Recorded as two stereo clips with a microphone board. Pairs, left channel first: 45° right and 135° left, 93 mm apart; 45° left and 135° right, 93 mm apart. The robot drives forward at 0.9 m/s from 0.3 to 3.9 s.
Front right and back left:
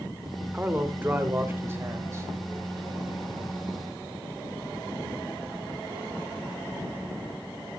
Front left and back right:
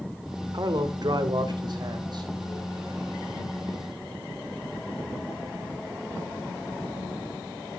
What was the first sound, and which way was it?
A man speaking, 155° right.